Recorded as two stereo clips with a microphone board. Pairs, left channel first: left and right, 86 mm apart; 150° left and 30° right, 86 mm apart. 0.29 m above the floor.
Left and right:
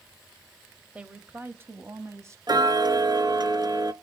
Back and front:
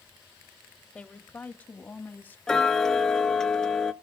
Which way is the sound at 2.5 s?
125° right.